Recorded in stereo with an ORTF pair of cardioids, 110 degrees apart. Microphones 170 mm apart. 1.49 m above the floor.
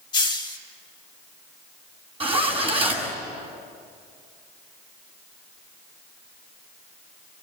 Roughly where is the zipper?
Ahead right.